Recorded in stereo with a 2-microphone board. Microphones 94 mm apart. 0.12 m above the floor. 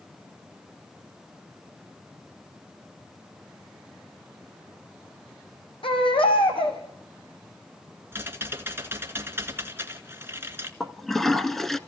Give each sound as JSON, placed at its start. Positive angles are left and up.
{"t": 5.8, "sound": "a baby crying", "side_deg": 70, "distance_m": 3.5}
{"t": 8.1, "sound": "typing on a keyboard", "side_deg": -25, "distance_m": 1.9}
{"t": 10.8, "sound": "a toilet flushing", "side_deg": 5, "distance_m": 0.9}